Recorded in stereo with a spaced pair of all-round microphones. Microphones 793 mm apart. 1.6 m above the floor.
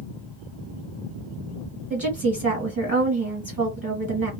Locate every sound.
1.9 s a woman speaking: 10° right (ahead or behind), 1.4 m